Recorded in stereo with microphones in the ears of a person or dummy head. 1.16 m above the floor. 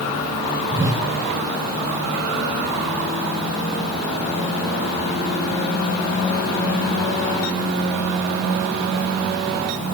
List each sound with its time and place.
0.7 s a whoosh: 15° right (ahead or behind), 3.5 m